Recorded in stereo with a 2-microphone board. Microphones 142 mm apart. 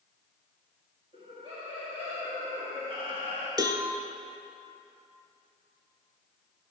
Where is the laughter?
45° right (ahead or behind), 1.5 m.